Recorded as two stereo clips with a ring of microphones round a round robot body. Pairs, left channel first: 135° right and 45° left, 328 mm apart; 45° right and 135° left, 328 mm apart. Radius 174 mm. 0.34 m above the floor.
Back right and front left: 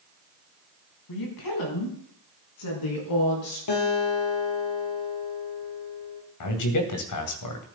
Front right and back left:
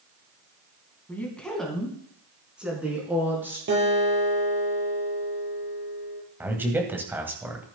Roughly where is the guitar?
Behind.